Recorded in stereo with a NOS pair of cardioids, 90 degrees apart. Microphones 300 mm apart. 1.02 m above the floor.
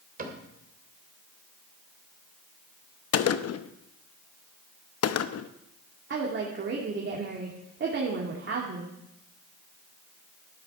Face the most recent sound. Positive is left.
turn(degrees=-40)